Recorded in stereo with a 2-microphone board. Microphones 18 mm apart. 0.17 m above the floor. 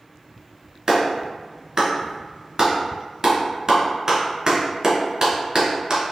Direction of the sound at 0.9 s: 35° right (ahead or behind).